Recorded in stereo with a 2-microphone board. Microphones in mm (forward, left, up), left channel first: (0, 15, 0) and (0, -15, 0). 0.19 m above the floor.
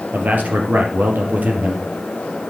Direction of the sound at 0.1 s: 70° right (ahead or behind).